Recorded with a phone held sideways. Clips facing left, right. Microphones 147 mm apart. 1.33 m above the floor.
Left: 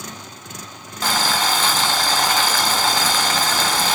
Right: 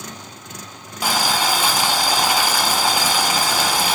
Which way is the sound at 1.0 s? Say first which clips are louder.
Right 1 dB; 10° right (ahead or behind).